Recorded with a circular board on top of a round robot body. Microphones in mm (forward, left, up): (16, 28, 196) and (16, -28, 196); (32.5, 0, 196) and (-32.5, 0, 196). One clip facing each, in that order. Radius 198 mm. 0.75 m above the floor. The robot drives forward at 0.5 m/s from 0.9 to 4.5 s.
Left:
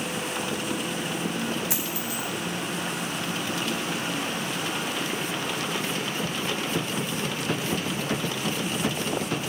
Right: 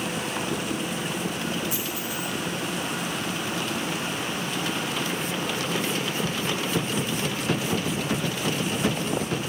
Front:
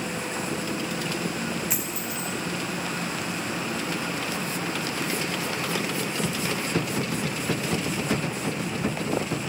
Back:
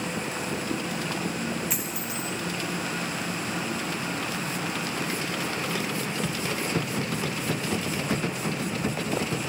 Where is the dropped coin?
85° left, 0.5 m; by 2.3 s 120° left, 0.6 m.